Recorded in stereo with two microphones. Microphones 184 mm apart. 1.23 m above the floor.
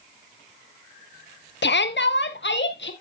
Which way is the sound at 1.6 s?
75° left (ahead or behind).